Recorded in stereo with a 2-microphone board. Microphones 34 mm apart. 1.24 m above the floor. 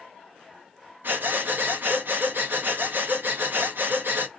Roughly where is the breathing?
Right.